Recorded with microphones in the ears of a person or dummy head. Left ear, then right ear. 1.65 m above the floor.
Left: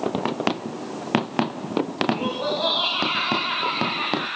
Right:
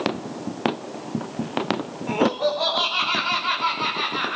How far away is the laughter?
About 6 m.